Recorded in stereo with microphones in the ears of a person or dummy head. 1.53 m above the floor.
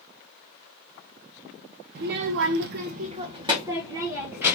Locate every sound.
1.9 s a child speaking: 55° right (ahead or behind), 0.7 m; by 4.6 s 10° right (ahead or behind), 1.7 m